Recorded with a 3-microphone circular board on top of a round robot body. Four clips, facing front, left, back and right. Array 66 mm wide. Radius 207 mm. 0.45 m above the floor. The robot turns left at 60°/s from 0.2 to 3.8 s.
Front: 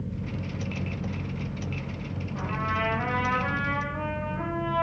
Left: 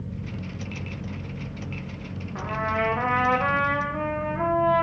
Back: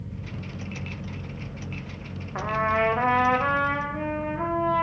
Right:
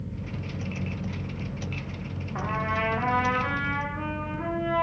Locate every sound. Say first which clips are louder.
2.4 s a trumpet: left 2 dB, back 6 dB; 170° right, 0.9 m; by 4.8 s 105° left, 0.9 m